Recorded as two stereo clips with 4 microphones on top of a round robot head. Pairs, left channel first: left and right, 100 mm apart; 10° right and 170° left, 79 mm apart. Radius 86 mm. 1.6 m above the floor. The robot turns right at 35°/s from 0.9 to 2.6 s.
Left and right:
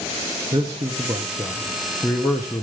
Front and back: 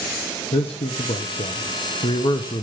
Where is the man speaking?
30° right, 0.8 m; by 2.6 s 30° left, 0.8 m.